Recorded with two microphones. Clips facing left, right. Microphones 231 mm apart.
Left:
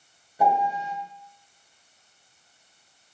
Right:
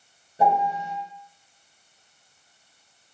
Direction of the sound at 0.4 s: 25° right (ahead or behind).